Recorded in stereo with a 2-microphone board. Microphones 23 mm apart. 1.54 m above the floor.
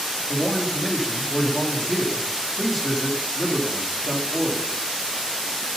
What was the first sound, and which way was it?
A man speaking, 5° right (ahead or behind).